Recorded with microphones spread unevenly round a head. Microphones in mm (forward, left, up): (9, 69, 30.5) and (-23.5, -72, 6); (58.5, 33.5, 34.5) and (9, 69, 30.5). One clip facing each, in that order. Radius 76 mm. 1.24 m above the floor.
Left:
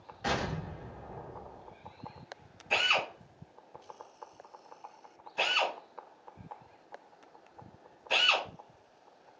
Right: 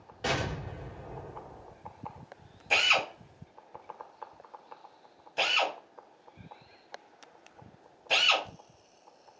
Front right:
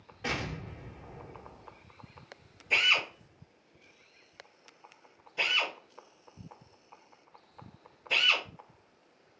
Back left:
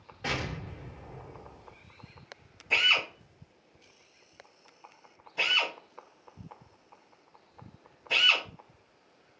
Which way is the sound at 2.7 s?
135° right.